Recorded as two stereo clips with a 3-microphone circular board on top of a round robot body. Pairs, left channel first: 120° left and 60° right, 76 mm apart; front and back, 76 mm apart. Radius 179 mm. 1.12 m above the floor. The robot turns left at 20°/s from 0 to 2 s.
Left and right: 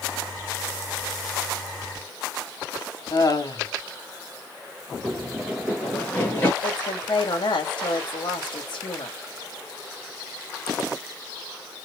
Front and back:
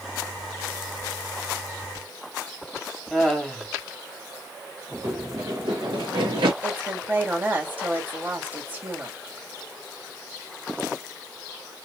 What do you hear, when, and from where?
3.1 s laughter: 90° left, 2.5 m
5.0 s running footsteps: 135° right, 1.4 m; by 6.5 s straight behind, 1.5 m
6.6 s a woman speaking: 115° left, 2 m